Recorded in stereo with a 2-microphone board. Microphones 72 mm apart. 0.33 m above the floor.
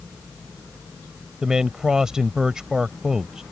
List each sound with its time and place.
1.4 s a man speaking: 10° right (ahead or behind)